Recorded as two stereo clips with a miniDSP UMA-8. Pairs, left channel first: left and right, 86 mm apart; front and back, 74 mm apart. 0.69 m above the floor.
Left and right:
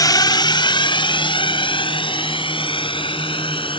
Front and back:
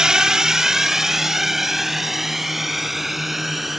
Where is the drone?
105° left; by 3.8 s 90° left.